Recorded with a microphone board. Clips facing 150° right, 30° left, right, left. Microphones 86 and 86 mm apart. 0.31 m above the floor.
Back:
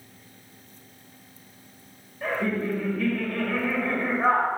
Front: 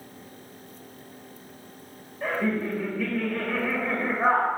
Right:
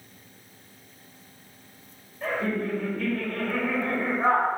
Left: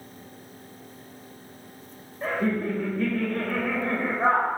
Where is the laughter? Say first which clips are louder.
Even, left 2 dB; 100° left, 1.2 m.